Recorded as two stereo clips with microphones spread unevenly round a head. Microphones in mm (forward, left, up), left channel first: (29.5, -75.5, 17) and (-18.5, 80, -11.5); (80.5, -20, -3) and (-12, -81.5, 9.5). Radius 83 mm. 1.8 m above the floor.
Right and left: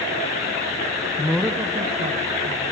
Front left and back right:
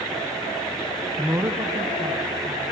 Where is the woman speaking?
75° right, 0.7 m; by 2.6 s 160° left, 2 m.